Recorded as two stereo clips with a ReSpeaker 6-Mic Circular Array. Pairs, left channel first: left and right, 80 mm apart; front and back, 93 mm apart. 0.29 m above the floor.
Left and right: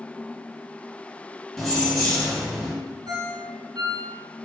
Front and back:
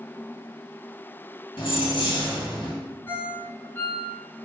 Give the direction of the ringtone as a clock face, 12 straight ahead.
2 o'clock.